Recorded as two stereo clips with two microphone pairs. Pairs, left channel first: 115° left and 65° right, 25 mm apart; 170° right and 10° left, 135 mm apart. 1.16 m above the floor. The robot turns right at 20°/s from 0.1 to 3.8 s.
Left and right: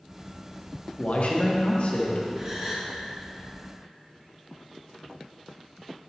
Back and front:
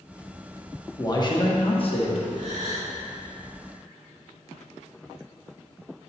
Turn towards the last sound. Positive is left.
turn(degrees=15)